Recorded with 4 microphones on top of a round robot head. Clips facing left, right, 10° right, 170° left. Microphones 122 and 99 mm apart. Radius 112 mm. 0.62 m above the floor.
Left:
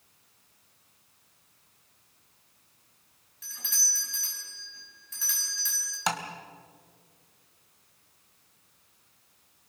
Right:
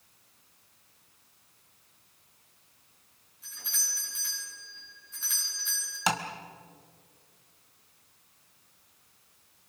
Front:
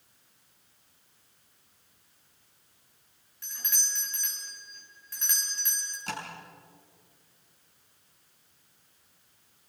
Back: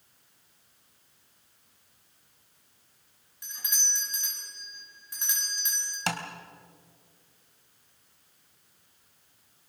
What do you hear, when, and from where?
3.4 s a doorbell: 100° left, 8 m
6.1 s tapping: straight behind, 2 m